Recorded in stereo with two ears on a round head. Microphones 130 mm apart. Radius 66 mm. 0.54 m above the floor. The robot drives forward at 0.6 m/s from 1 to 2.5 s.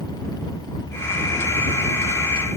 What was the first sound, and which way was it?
Only background noise.